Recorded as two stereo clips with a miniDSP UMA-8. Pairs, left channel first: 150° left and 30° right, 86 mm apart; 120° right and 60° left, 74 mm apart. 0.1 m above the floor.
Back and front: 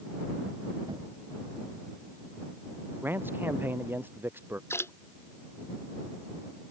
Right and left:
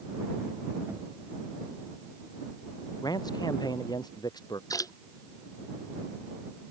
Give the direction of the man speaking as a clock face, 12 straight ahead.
3 o'clock.